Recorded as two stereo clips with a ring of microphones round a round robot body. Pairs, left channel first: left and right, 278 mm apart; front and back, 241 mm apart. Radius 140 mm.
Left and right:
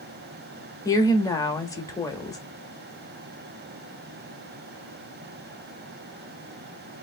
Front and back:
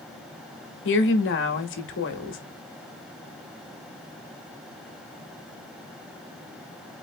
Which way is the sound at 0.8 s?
15° left.